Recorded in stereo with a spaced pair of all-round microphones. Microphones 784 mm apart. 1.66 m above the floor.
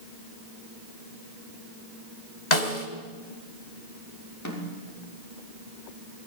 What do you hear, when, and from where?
2.5 s a snare drum: 60° left (ahead or behind), 3 m
4.5 s a snare drum: 20° left (ahead or behind), 6 m